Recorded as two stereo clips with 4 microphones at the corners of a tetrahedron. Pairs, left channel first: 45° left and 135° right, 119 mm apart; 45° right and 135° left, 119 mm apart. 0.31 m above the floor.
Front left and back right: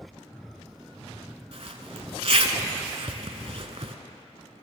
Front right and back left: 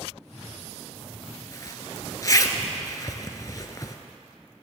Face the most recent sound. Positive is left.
turn(degrees=-105)